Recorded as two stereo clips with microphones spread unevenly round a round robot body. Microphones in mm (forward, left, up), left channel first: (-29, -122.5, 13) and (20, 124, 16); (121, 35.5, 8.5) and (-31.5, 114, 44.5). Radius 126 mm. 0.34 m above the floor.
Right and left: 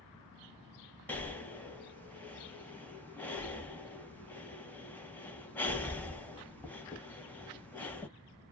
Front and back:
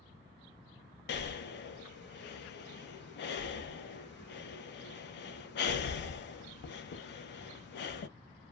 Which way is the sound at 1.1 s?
20° right.